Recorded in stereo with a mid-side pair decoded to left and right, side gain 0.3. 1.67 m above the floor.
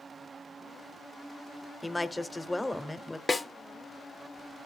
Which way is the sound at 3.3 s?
35° left.